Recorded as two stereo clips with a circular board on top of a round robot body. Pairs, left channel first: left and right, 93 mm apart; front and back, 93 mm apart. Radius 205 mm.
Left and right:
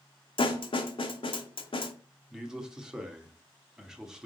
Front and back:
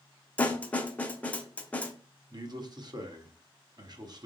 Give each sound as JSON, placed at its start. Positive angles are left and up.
{"t": 0.4, "sound": "a snare drum", "azimuth_deg": 75, "distance_m": 1.1}
{"t": 2.3, "sound": "a man speaking", "azimuth_deg": -170, "distance_m": 1.7}